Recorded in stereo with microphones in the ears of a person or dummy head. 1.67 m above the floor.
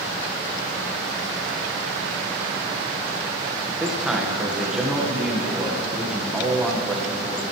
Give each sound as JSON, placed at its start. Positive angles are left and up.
{"t": 3.7, "sound": "a man speaking", "side_deg": -5, "distance_m": 1.5}